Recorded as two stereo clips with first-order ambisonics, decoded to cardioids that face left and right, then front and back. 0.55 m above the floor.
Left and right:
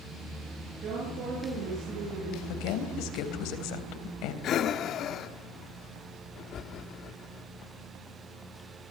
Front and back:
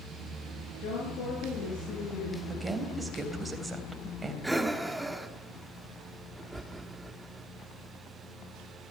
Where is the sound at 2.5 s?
100° left, 3 m.